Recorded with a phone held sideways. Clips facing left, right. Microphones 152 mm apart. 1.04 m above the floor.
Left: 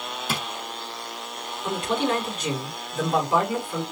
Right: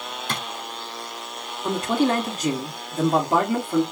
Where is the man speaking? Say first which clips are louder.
Right 4 dB; 40° right (ahead or behind), 2.5 m.